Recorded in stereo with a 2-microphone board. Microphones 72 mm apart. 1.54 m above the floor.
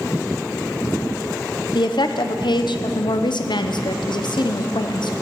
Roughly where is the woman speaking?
Left.